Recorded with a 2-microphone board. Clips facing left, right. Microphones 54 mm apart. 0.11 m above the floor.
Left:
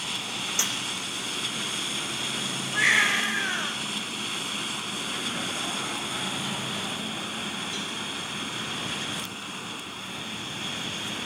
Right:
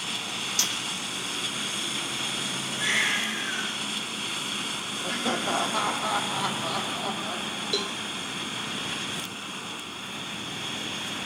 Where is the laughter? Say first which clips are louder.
Right 7 dB; 75° right (ahead or behind), 5 m.